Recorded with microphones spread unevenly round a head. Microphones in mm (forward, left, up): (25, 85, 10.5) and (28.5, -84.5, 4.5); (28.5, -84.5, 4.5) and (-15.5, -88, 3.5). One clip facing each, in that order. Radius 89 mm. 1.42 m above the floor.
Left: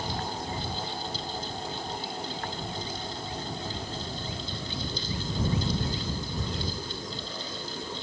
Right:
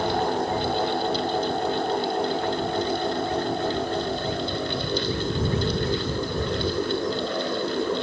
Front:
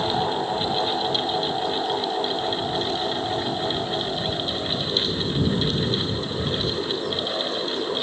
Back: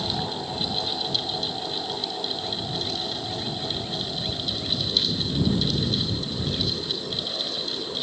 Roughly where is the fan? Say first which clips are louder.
Right 11 dB, front 6 dB; ahead right.